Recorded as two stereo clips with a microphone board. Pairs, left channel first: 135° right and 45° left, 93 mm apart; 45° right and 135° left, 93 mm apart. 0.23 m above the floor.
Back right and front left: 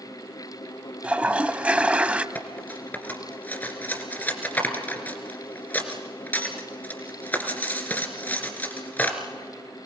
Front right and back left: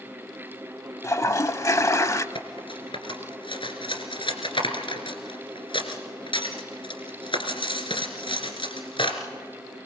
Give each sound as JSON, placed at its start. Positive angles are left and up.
{"t": 1.0, "sound": "a toilet flushing", "azimuth_deg": -20, "distance_m": 0.7}
{"t": 2.4, "sound": "cutlery clinking", "azimuth_deg": -65, "distance_m": 2.0}